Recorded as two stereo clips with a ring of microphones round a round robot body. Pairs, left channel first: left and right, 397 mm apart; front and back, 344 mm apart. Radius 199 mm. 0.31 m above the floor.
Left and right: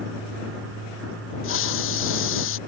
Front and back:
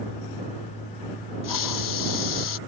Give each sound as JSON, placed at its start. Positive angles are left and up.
{"t": 1.4, "sound": "a hiss", "azimuth_deg": 30}